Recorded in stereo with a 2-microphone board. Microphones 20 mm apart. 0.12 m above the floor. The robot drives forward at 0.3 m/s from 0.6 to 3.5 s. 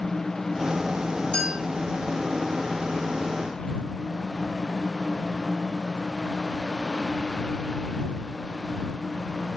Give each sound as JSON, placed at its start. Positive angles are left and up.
{"t": 1.3, "sound": "a clink", "side_deg": 60, "distance_m": 1.8}